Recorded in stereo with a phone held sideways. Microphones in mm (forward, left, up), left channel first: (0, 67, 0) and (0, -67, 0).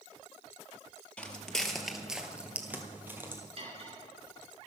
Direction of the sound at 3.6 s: 50° right (ahead or behind).